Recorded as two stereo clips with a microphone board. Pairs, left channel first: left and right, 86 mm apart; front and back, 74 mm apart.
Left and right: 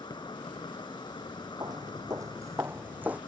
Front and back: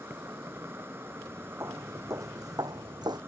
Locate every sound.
0.0 s an insect: 120° left
1.6 s footsteps: 125° right; by 3.2 s 165° right